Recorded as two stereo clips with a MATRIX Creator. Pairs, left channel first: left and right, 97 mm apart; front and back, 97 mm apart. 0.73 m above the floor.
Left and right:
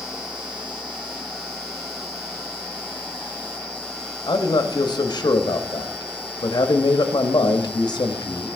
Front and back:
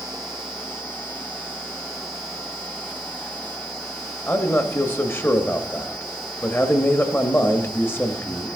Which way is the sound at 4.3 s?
65° left.